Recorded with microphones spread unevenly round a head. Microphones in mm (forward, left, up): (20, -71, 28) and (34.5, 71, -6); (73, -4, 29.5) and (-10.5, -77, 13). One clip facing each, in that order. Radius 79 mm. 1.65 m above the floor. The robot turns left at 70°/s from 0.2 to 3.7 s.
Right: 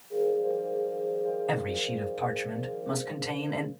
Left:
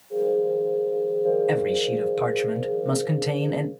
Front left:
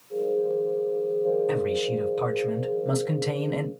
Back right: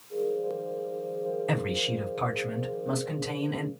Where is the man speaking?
170° left, 1.1 m; by 3.7 s 15° left, 1.1 m.